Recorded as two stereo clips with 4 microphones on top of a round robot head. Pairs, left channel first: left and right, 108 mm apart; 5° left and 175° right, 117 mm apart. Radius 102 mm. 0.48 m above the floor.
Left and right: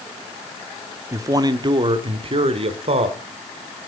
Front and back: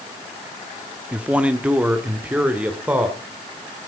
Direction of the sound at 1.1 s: 105° right.